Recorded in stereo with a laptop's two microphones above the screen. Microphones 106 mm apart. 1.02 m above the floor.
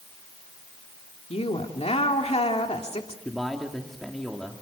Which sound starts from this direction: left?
A woman speaking, at 1.3 s.